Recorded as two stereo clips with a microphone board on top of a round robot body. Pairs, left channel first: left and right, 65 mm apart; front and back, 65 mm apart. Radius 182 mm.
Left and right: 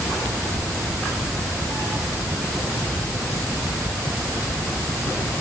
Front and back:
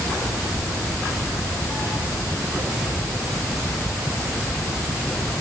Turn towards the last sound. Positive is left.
No sound to turn to.